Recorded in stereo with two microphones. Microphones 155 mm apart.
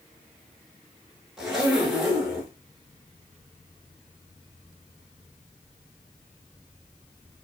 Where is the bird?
I don't hear a bird.